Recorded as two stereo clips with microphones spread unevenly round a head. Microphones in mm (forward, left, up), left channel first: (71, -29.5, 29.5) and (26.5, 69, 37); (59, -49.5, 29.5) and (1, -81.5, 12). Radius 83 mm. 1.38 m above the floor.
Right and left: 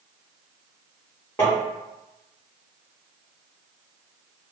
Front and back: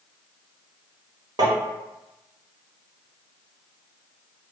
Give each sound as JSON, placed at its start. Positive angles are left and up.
{"t": 1.4, "sound": "tapping", "azimuth_deg": -145, "distance_m": 0.9}